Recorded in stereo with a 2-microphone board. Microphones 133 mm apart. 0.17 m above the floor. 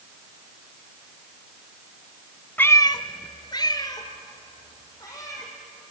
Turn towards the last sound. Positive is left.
turn(degrees=25)  # may be behind; listen again after turning